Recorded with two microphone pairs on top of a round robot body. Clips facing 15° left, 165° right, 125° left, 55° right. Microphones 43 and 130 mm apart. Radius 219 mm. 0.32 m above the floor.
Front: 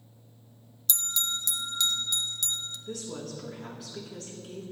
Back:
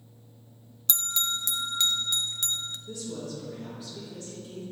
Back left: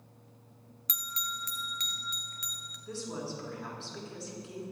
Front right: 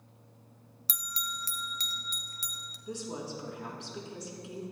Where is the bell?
110° right, 0.9 m.